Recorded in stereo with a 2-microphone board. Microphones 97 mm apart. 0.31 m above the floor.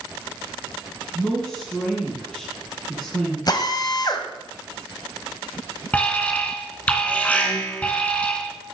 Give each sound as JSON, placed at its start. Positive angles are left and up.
{"t": 1.1, "sound": "a woman speaking", "side_deg": 5, "distance_m": 2.5}
{"t": 3.5, "sound": "a drill", "side_deg": 45, "distance_m": 1.7}
{"t": 5.9, "sound": "an alarm", "side_deg": 15, "distance_m": 2.0}